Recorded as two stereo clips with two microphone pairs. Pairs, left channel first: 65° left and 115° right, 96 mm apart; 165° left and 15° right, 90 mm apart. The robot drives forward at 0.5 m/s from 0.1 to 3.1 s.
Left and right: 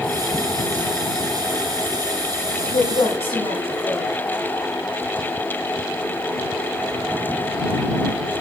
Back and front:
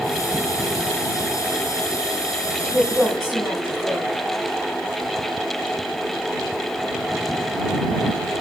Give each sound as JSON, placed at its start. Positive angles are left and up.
{"t": 2.6, "sound": "a woman speaking", "azimuth_deg": 75, "distance_m": 8.5}